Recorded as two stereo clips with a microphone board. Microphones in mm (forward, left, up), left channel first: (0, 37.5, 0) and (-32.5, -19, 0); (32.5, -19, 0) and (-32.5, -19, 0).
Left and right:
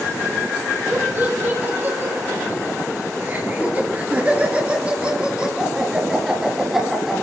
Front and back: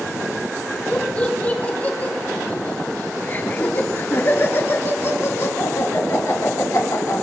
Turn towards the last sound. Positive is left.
turn(degrees=-30)